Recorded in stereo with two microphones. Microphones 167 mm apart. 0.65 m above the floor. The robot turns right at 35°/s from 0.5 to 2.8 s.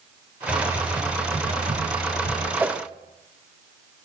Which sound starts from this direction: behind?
Typing on a keyboard, at 0.5 s.